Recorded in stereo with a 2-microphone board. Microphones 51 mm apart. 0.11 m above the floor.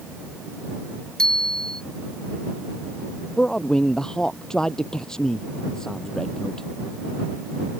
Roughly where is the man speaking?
Centre.